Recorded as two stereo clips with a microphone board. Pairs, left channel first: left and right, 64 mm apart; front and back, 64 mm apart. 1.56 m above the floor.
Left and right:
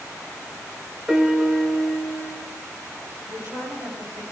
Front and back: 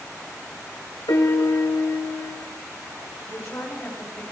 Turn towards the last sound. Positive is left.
turn(degrees=-65)